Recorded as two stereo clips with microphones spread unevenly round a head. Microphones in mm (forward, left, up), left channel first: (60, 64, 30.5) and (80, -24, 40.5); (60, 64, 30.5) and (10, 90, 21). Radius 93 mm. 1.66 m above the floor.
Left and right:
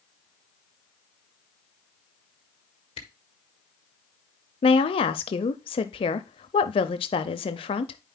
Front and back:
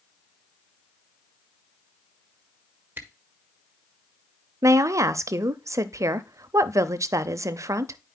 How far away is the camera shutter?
About 1.3 m.